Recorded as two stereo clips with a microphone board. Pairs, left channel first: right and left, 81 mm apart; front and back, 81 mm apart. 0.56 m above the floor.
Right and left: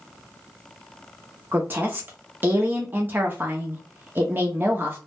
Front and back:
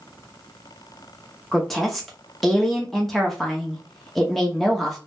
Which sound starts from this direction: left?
A woman speaking, at 1.5 s.